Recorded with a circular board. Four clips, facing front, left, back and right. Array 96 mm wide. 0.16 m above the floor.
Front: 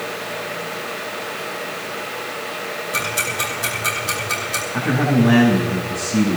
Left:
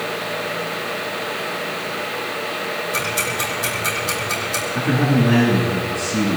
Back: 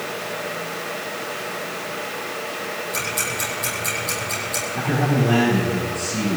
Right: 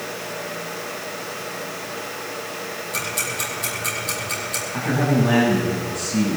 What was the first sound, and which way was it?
Ticking, 20° left.